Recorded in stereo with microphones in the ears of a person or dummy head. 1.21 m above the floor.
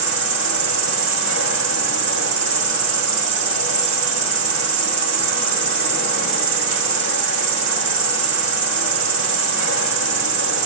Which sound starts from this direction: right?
An insect, at 0.0 s.